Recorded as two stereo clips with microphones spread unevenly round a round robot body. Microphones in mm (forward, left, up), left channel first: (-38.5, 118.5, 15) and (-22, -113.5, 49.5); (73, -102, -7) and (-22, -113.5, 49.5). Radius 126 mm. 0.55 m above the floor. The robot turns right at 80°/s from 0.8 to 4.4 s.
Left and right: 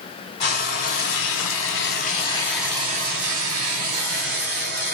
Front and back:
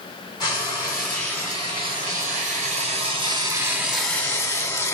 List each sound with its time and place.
0.4 s frying: 40° left, 1.8 m; by 4.9 s 35° right, 1.8 m